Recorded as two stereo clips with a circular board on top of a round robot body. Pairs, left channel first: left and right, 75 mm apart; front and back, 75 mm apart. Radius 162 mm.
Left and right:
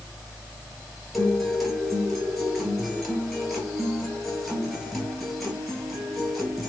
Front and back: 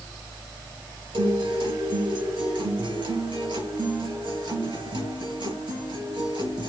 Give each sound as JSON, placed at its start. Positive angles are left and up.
{"t": 1.1, "sound": "a guitar", "azimuth_deg": 180, "distance_m": 5.0}